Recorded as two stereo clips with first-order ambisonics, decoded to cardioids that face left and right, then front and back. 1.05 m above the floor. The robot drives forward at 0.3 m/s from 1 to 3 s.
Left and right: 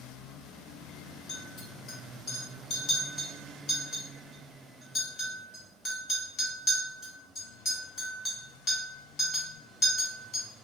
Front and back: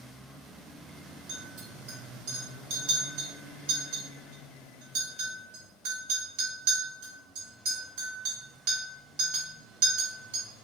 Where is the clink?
150° left, 1.5 m; by 10.4 s 160° left, 2.0 m.